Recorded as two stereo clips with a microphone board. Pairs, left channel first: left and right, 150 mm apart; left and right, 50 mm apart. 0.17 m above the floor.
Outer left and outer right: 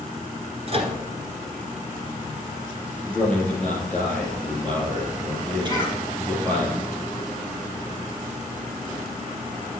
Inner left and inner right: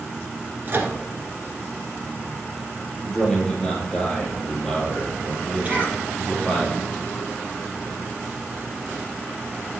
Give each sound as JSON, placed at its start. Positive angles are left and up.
{"t": 0.7, "sound": "a microwave", "side_deg": -40, "distance_m": 1.6}
{"t": 3.1, "sound": "a man speaking", "side_deg": 5, "distance_m": 3.5}
{"t": 5.7, "sound": "a cough", "side_deg": -30, "distance_m": 4.0}